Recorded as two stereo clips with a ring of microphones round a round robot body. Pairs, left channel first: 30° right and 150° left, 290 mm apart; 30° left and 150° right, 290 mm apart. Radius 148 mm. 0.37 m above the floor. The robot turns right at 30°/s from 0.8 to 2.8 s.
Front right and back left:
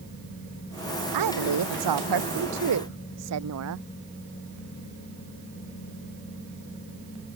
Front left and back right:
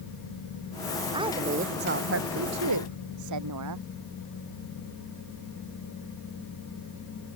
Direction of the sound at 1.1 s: 135° left.